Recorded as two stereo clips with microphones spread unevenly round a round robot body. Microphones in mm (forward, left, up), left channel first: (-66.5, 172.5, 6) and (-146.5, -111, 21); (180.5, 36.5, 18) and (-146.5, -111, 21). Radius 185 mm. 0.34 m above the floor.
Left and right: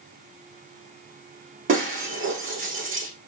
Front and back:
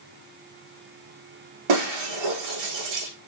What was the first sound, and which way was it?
Breaking glass, 155° right.